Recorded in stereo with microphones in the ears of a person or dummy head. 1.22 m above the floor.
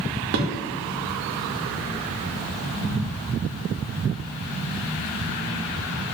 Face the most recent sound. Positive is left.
turn(degrees=-55)  # may be behind; listen again after turning